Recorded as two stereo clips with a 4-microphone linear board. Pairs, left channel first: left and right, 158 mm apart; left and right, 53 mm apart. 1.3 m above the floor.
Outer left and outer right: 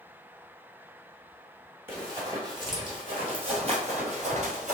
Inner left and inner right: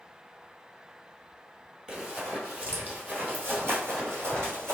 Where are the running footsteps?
15° right (ahead or behind), 1.6 m; by 4.8 s 55° right (ahead or behind), 2 m.